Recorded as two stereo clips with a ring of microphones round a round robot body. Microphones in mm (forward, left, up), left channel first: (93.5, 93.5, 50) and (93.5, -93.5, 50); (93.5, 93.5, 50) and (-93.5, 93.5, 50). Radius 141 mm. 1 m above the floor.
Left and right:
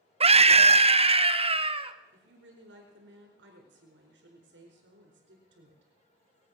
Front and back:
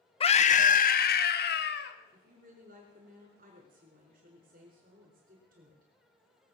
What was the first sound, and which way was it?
A scream, 45° right.